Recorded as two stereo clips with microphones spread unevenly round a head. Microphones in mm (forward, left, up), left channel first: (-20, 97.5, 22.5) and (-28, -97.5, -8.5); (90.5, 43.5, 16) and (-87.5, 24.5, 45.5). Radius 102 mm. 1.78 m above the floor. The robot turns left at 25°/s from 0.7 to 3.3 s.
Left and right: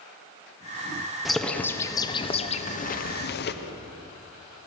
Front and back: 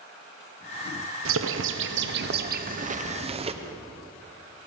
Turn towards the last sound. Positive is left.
turn(degrees=125)